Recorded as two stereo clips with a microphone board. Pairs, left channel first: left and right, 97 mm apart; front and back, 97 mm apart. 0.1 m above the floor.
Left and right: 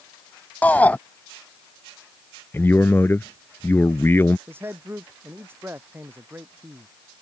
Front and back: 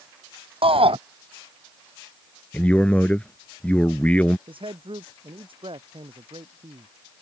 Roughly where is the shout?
Behind.